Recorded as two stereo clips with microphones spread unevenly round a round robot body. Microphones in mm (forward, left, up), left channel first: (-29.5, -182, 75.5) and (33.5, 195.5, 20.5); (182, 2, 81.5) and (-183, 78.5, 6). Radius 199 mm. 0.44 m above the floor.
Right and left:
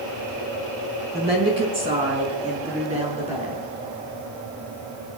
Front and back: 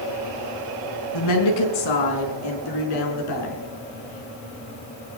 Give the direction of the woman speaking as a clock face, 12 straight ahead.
12 o'clock.